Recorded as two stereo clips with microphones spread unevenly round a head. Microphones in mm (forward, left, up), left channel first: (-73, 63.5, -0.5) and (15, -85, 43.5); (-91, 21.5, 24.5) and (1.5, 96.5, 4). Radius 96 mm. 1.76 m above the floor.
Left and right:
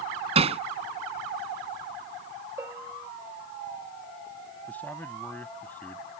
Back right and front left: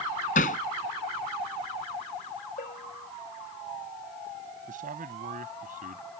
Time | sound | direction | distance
0.3 | hammering | 110° right | ?
2.6 | a bell | 130° right | ?
4.7 | a man speaking | 35° left | ?